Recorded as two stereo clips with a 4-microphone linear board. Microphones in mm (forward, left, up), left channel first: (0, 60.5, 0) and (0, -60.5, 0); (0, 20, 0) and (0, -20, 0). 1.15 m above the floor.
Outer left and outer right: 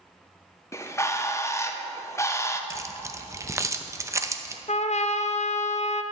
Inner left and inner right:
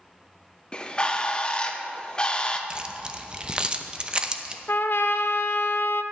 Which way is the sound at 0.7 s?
25° left (ahead or behind).